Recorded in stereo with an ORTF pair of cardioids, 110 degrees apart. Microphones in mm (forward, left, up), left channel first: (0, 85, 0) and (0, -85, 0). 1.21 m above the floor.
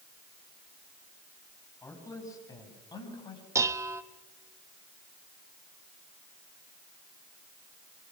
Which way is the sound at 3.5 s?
15° right.